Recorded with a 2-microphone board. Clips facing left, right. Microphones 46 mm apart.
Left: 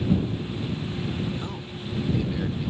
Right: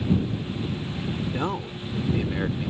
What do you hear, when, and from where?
1.2 s a man speaking: 50° right (ahead or behind); by 2.7 s 30° right (ahead or behind)